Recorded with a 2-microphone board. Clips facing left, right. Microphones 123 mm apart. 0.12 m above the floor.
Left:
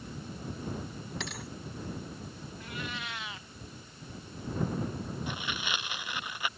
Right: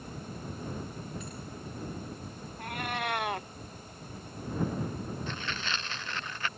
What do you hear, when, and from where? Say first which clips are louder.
1.2 s a thud: left 2 dB; 75° left (ahead or behind)
2.6 s a cat meowing: right 7 dB; 55° right (ahead or behind)
5.3 s tearing paper: even; 10° left (ahead or behind)